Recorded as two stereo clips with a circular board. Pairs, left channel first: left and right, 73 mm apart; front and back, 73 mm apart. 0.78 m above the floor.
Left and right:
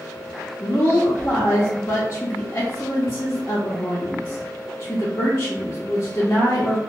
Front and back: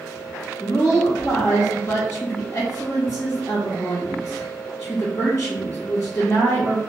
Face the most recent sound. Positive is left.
turn(degrees=45)